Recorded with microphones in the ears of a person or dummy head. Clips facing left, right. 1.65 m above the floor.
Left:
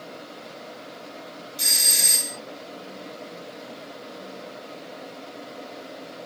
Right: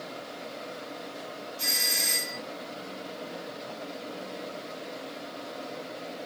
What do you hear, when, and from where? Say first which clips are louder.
1.6 s a doorbell: even; 80° left, 2 m